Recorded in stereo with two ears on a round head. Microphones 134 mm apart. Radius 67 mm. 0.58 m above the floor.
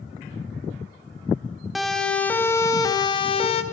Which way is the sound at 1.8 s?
Centre (ahead or behind).